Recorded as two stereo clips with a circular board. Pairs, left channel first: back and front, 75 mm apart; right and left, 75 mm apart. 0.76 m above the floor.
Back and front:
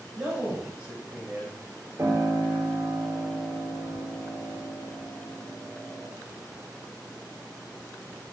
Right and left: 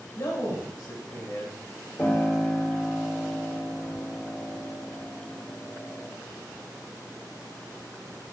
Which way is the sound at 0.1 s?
70° right.